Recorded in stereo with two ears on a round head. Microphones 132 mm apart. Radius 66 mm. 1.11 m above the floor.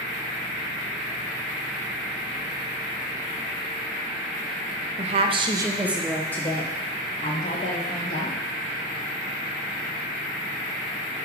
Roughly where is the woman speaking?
Right.